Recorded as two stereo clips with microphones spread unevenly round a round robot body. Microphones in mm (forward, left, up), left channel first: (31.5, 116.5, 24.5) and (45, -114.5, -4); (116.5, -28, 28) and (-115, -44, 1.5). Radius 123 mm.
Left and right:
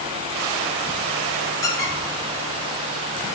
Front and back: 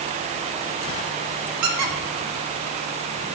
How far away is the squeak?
About 1.1 m.